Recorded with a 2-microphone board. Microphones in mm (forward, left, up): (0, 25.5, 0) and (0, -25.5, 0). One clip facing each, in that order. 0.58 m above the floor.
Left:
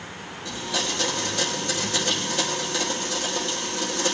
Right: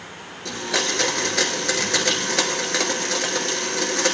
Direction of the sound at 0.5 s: 70° right (ahead or behind).